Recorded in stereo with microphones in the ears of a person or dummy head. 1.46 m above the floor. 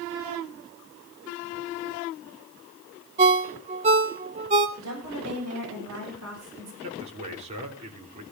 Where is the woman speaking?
85° right, 8 m.